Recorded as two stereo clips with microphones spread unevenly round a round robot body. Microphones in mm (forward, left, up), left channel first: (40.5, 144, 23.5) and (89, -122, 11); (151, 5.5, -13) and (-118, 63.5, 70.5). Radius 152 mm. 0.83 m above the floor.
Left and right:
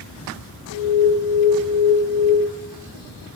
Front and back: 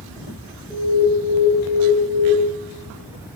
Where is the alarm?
65° left, 5.5 m.